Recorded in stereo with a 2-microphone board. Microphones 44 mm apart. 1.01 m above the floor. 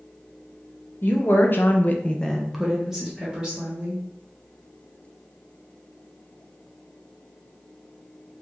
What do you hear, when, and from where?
1.0 s a woman speaking: 50° left (ahead or behind), 1.0 m; by 4.0 s 20° right (ahead or behind), 1.8 m